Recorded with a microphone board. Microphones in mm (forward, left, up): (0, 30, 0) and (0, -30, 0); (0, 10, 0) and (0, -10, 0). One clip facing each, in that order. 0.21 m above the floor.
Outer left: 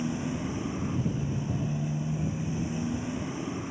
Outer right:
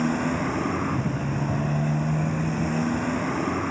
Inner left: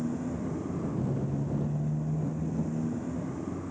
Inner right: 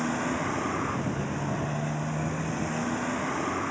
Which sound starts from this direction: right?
A motorcycle, at 0.0 s.